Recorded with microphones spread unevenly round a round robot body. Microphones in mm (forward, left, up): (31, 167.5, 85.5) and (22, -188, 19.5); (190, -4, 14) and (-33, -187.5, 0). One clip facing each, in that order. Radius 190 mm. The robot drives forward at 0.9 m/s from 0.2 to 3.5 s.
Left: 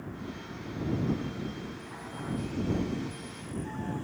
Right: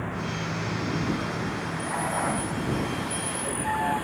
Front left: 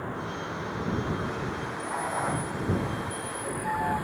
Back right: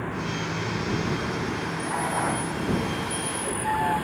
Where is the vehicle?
90° right; by 4.0 s 95° right.